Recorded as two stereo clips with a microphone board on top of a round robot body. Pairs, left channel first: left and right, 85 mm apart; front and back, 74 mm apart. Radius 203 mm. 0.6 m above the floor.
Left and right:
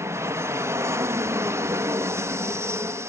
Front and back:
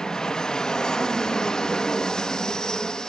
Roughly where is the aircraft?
Right.